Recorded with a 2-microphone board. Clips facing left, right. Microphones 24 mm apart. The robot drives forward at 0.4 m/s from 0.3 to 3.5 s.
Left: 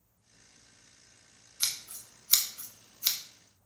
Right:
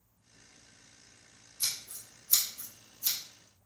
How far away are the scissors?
About 0.8 m.